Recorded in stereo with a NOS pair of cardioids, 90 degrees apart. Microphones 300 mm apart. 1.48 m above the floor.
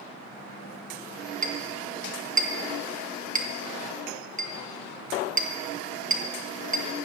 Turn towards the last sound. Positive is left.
turn(degrees=-30)